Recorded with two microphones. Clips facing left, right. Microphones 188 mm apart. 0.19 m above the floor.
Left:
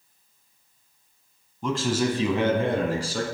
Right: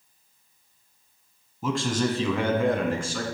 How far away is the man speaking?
About 1.0 m.